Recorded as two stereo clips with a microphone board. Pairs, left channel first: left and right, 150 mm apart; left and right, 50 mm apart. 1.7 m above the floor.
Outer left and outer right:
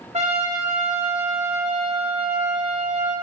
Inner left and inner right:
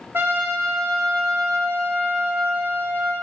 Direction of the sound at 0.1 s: 50° right (ahead or behind).